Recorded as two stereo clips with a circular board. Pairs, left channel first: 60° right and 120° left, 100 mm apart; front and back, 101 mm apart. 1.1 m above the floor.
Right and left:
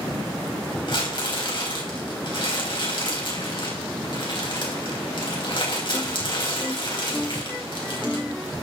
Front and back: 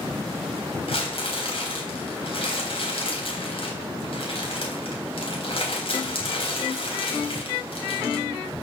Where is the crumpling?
25° right, 3.5 m.